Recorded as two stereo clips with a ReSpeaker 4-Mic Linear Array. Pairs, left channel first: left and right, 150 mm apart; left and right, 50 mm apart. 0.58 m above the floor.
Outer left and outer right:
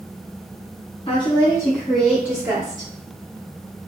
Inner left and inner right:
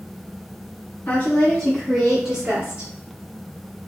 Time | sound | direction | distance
1.1 | a woman speaking | 35° left (ahead or behind) | 0.8 m